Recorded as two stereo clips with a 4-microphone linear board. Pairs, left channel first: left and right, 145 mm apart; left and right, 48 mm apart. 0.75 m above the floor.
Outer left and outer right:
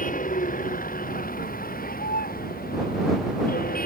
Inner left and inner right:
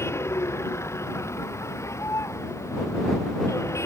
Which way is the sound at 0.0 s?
65° left (ahead or behind).